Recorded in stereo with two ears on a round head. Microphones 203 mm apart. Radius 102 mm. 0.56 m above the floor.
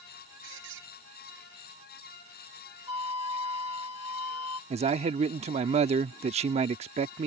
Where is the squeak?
55° right (ahead or behind).